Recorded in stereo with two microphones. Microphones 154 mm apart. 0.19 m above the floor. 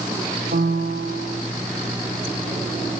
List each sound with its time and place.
0.5 s a piano: 85° right, 3 m